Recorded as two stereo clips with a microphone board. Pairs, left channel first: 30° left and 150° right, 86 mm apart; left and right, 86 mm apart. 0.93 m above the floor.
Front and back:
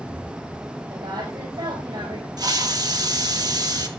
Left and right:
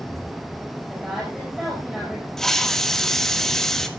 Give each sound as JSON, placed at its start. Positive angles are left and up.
{"t": 0.9, "sound": "a woman speaking", "azimuth_deg": -175, "distance_m": 5.0}
{"t": 2.4, "sound": "a hiss", "azimuth_deg": 175, "distance_m": 1.4}